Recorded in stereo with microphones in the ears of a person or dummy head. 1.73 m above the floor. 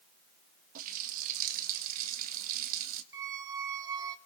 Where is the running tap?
50° right (ahead or behind), 1.8 m.